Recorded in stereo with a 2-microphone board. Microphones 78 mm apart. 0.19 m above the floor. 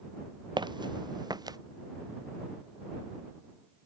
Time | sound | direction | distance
0.6 | footsteps | 80° right | ?